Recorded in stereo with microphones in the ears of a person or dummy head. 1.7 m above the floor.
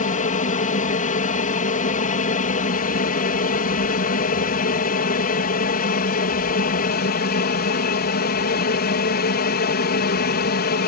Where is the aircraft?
35° left (ahead or behind); by 10.9 s 45° left (ahead or behind).